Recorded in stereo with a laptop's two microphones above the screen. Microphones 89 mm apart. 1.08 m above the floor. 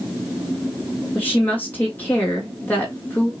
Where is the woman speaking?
20° left (ahead or behind), 1.9 m.